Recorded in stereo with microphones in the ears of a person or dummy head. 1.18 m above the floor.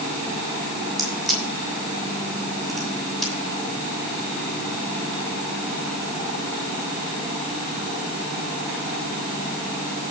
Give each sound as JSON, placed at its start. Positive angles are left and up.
{"t": 1.0, "sound": "a crack", "side_deg": 0, "distance_m": 7.0}